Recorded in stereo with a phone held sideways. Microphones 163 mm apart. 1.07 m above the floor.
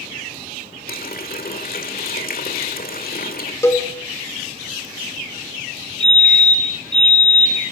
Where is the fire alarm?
25° right (ahead or behind), 8 m.